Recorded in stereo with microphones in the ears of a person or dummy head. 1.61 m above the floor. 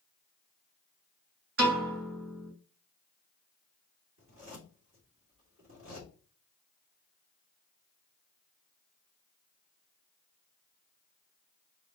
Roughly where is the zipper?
Right.